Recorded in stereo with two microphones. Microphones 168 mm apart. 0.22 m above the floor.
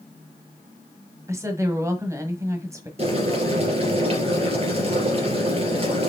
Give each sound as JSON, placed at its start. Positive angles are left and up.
{"t": 1.3, "sound": "a woman speaking", "side_deg": -20, "distance_m": 1.2}
{"t": 3.0, "sound": "boiling", "side_deg": -40, "distance_m": 3.0}